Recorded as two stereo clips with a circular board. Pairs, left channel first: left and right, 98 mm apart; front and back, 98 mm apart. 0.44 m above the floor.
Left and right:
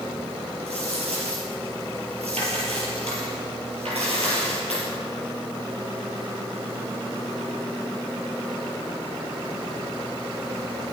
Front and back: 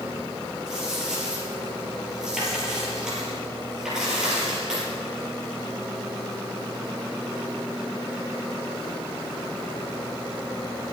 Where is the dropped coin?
95° right, 5 m.